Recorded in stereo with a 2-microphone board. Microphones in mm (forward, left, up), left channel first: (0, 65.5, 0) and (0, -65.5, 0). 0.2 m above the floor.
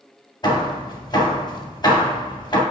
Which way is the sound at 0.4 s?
35° left (ahead or behind).